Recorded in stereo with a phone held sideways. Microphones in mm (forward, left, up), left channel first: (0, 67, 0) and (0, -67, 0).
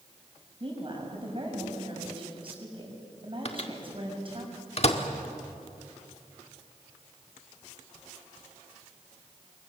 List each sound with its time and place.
0.6 s a woman speaking: 40° right (ahead or behind), 6 m
3.5 s a microwave: 50° left (ahead or behind), 1.7 m